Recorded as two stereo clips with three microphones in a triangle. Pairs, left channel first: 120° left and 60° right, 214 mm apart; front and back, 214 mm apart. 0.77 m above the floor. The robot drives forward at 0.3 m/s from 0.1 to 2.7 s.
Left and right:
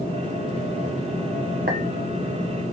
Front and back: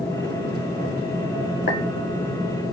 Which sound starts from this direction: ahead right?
A clink, at 1.7 s.